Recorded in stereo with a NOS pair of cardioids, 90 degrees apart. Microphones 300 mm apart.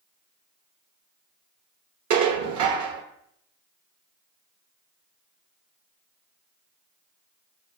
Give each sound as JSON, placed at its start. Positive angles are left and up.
{"t": 2.1, "sound": "dishes clattering", "azimuth_deg": -70, "distance_m": 1.2}